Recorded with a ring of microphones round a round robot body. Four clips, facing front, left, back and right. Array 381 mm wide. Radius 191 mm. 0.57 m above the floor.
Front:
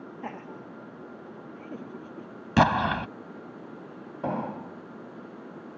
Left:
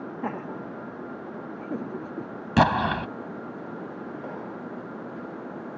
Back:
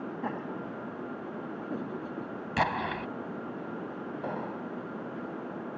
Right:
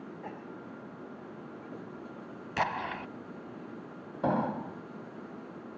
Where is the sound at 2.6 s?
50° left.